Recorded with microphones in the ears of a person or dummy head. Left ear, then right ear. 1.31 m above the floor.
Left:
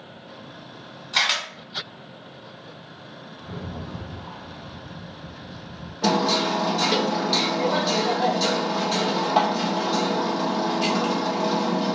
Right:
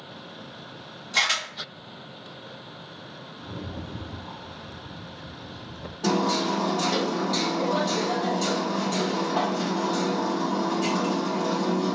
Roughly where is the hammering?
Left.